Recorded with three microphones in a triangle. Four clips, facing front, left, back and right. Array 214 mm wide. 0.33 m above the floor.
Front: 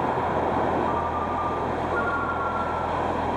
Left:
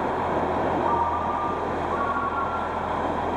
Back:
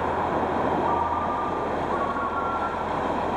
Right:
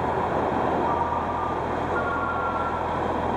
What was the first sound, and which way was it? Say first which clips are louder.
A ringtone: left 1 dB, back 1 dB; 110° right.